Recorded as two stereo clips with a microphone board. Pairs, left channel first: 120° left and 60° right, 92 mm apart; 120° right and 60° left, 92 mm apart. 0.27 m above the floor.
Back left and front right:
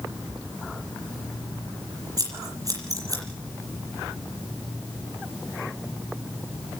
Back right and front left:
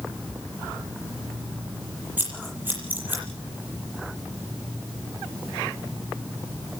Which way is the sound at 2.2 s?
10° right.